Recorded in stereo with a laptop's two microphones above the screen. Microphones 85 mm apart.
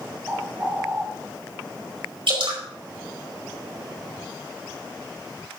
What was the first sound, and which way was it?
A bird, 20° right (ahead or behind).